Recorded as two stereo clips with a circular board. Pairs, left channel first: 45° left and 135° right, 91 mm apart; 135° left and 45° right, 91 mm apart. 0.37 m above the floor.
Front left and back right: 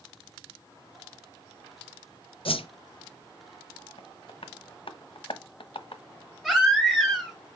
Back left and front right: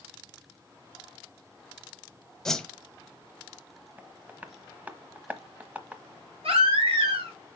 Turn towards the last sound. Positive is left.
turn(degrees=-45)